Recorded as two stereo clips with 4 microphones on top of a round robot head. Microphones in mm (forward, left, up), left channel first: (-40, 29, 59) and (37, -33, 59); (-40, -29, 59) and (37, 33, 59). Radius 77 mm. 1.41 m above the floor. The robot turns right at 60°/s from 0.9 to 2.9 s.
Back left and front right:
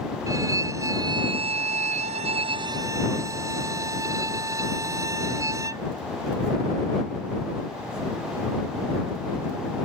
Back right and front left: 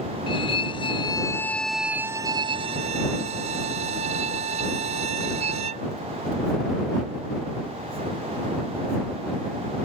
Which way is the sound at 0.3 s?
100° right.